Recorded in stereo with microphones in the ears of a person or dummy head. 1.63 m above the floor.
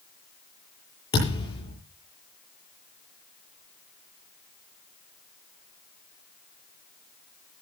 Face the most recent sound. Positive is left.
turn(degrees=35)  # may be behind; listen again after turning